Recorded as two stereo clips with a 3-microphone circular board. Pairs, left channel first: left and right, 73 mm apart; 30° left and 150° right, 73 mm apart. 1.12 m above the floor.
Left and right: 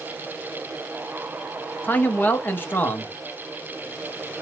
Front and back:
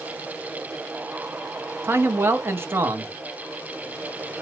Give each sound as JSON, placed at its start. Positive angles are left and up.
{"t": 1.8, "sound": "a man speaking", "azimuth_deg": 155, "distance_m": 0.8}